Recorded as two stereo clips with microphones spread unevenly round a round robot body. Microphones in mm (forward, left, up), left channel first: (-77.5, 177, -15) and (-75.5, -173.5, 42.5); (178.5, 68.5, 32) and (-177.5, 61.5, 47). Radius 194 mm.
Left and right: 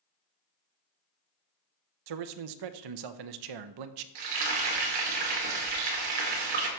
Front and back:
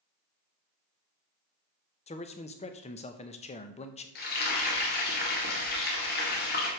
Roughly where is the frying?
Ahead right.